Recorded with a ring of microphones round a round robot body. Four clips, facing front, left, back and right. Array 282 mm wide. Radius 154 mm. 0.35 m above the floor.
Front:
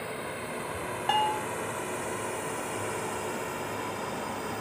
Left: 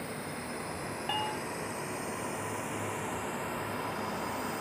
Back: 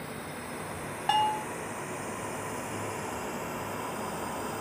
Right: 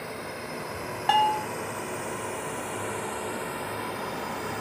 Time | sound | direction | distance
0.0 | a drone | 30° right | ?
1.1 | a bell | 95° right | ?